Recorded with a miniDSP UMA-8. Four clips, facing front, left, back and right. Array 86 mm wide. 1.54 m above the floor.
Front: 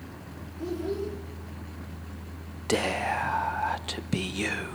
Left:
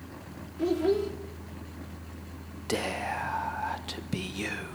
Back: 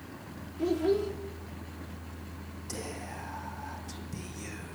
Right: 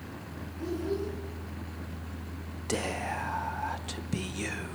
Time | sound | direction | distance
0.6 | a child speaking | 120° left | 2.5 m
2.7 | whispering | 10° left | 0.9 m